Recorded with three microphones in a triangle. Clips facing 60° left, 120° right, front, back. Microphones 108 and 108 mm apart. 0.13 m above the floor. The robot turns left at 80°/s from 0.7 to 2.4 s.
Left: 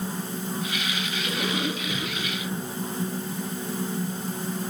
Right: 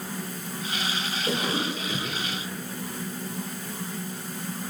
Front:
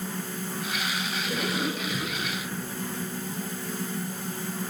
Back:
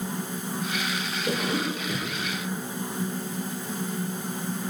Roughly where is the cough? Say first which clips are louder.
Right 1 dB, back 3 dB; behind.